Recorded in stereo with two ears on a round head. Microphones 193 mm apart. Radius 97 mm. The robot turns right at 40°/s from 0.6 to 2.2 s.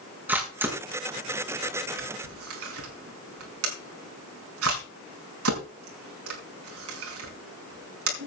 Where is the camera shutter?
10° right (ahead or behind), 5 m; by 8.3 s 70° right (ahead or behind), 5 m.